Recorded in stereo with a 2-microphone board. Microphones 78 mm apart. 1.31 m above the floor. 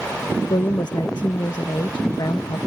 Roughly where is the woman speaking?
Left.